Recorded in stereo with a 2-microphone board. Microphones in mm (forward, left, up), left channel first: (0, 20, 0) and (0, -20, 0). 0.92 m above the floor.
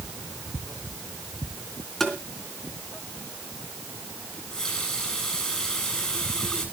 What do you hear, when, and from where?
2.0 s tapping: 5° left (ahead or behind), 3.5 m
4.3 s a running tap: 15° left (ahead or behind), 8 m